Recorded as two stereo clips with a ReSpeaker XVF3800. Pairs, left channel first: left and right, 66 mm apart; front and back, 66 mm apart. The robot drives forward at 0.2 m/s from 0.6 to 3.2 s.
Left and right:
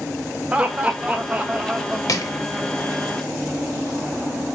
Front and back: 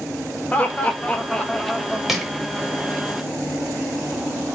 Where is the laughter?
40° right, 0.8 m; by 2.0 s 85° right, 0.7 m.